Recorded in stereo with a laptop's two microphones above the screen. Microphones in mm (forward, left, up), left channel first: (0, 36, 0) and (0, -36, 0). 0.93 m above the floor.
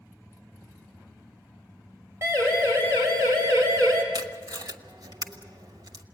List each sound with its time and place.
2.2 s a siren: 35° right (ahead or behind), 6 m; by 4.0 s 45° right (ahead or behind), 5 m
4.1 s tape being pulled: 65° right (ahead or behind), 1.2 m